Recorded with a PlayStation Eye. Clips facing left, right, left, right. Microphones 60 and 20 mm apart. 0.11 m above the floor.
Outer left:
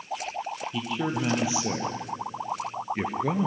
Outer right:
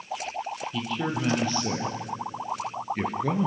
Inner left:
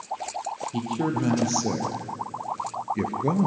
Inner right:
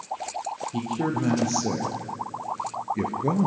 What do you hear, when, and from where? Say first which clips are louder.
0.7 s a man speaking: outer left 1 dB, even; 10° left (ahead or behind), 3.5 m; by 3.5 s 5° left (ahead or behind), 1.8 m